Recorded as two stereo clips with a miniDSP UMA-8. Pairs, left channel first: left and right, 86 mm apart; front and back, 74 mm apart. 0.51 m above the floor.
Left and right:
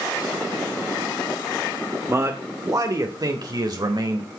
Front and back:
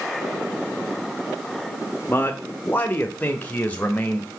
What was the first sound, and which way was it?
A man speaking, 45° right.